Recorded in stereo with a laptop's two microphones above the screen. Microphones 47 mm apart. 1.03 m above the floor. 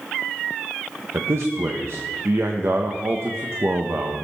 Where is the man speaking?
65° right (ahead or behind), 0.9 m.